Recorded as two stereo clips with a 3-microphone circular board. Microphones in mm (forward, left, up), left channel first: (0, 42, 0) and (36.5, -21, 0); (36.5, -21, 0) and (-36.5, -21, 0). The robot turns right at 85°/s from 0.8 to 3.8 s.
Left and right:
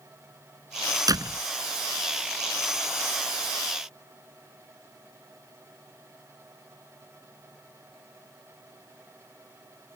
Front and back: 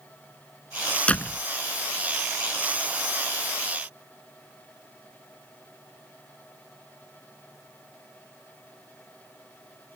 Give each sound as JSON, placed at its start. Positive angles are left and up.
{"t": 1.1, "sound": "a door slam", "azimuth_deg": -70}